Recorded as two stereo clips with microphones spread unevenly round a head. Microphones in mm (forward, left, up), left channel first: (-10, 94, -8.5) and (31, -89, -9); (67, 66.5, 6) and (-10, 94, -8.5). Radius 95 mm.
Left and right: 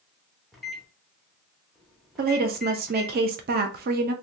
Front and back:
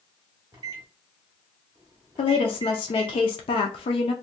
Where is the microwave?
170° right, 0.6 m.